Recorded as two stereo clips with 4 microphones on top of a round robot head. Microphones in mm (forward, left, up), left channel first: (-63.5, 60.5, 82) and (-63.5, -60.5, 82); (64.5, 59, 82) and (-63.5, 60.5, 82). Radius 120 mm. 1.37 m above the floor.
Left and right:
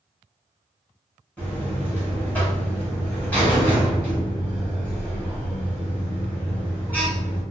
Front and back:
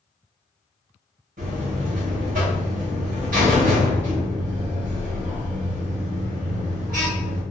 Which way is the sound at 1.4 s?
170° left.